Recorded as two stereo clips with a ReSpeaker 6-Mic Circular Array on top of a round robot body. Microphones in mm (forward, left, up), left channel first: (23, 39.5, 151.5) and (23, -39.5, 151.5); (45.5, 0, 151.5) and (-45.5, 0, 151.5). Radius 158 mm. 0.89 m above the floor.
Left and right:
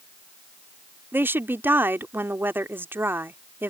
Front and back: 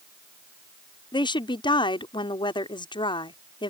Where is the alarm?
I don't hear an alarm.